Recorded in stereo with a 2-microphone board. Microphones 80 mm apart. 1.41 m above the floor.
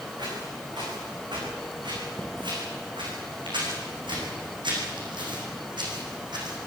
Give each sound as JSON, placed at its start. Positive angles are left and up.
{"t": 0.2, "sound": "footsteps", "side_deg": -65, "distance_m": 9.0}